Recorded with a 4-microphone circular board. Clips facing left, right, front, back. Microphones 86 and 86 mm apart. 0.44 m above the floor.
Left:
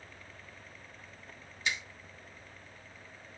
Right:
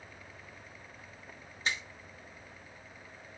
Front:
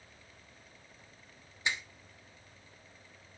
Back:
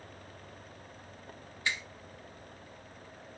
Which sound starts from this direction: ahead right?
A finger snap, at 1.6 s.